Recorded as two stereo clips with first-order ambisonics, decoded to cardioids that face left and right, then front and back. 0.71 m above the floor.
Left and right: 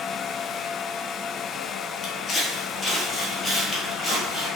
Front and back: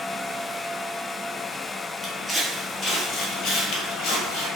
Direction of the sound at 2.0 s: 105° left.